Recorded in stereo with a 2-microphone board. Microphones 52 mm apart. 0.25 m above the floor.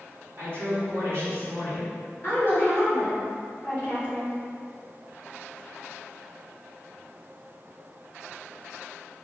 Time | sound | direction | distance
0.4 | a woman speaking | 35° right (ahead or behind) | 1.6 m
2.2 | a woman speaking | 25° left (ahead or behind) | 1.3 m